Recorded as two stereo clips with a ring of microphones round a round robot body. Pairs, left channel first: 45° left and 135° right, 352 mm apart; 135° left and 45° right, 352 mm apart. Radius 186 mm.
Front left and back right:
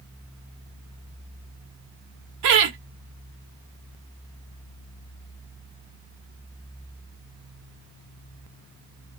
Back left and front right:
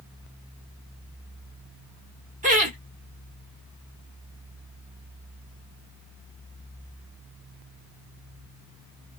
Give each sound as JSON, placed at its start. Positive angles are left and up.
{"t": 2.4, "sound": "laughter", "azimuth_deg": -110, "distance_m": 1.1}